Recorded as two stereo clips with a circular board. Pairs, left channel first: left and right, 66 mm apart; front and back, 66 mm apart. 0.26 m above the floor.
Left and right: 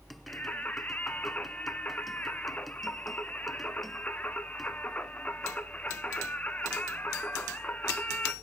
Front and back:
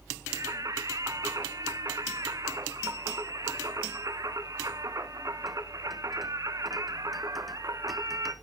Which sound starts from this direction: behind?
Singing, at 0.3 s.